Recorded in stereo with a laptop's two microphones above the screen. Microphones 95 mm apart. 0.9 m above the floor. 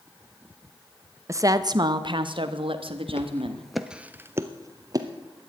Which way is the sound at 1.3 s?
30° right (ahead or behind).